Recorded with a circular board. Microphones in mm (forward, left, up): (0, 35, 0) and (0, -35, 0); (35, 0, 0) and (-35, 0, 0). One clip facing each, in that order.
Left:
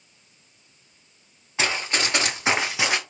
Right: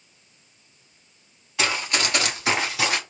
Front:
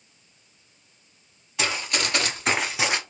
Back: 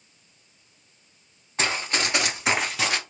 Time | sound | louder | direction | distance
1.6 | running footsteps | even, back 1 dB | 150° left | 1.6 m